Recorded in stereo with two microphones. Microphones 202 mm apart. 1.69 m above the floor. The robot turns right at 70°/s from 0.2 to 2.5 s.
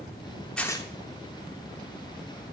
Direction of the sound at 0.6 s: 5° left (ahead or behind).